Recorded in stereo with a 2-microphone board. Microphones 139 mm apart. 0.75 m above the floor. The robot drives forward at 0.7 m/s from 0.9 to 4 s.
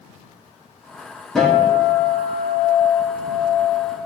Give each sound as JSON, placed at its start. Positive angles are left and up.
{"t": 1.4, "sound": "a guitar", "side_deg": 5, "distance_m": 4.0}